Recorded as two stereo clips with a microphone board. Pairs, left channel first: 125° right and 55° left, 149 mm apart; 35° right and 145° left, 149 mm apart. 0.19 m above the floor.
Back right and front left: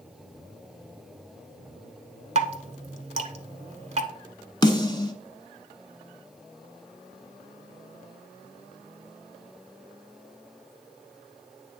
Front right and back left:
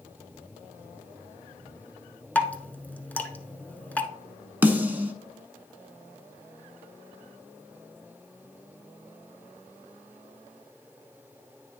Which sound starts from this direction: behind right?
A snare drum, at 4.6 s.